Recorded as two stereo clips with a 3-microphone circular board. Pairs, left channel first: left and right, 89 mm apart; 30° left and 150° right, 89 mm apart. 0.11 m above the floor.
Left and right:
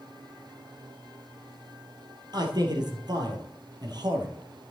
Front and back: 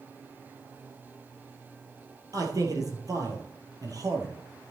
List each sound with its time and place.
2.3 s a man speaking: 110° right, 2.5 m